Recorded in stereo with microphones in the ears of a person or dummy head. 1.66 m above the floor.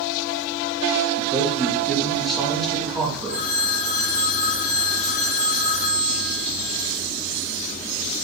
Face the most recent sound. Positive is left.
turn(degrees=55)  # may be behind; listen again after turning